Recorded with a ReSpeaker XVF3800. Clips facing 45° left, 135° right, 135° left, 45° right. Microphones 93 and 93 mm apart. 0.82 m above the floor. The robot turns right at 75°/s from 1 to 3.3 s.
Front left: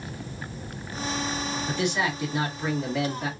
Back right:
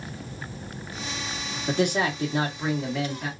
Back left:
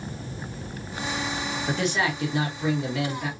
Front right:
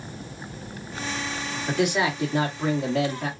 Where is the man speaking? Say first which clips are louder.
Back right 5 dB, front right 3 dB; 135° right, 1.6 m; by 3.3 s 15° right, 1.6 m.